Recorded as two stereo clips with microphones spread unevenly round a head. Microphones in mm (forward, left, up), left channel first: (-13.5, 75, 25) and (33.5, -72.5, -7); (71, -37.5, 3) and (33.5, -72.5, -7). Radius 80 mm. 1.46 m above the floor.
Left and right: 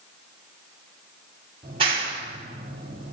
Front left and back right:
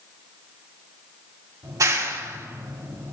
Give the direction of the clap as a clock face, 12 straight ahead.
5 o'clock.